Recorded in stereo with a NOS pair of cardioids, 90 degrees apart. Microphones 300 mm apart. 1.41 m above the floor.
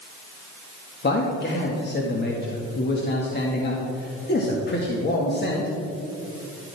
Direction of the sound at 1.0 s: 35° left.